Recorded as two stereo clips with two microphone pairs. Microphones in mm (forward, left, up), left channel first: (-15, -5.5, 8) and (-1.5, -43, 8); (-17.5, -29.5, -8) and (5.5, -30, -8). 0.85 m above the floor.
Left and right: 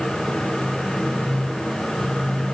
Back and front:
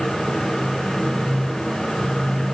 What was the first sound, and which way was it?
Only background noise.